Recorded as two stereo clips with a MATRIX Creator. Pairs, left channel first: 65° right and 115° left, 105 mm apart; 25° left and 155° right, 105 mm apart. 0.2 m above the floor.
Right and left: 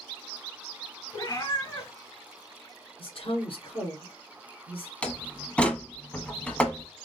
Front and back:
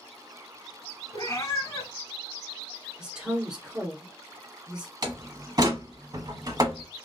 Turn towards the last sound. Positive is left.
turn(degrees=-140)